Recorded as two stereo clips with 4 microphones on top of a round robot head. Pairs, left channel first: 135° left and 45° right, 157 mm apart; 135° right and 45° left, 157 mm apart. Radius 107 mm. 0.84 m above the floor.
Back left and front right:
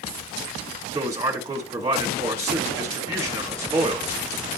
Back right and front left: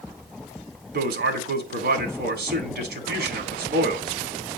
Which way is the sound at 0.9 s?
25° left.